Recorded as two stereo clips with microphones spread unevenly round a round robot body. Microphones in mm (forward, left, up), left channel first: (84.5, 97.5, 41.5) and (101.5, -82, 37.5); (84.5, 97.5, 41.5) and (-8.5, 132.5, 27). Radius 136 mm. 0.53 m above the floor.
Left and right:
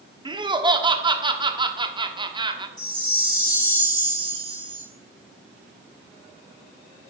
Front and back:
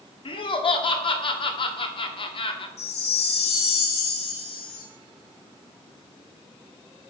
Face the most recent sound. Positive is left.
turn(degrees=-20)